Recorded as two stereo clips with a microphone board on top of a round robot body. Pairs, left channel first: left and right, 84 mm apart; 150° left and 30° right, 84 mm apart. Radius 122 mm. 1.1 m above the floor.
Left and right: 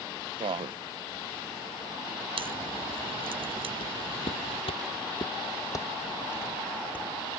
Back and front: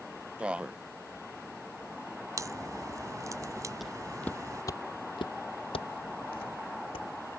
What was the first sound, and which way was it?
A man speaking, 105° right.